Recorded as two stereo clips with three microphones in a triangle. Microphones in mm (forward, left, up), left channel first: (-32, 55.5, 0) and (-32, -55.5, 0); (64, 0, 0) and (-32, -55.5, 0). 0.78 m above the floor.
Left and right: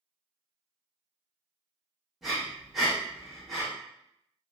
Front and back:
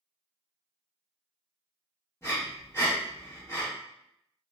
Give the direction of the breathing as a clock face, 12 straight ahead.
12 o'clock.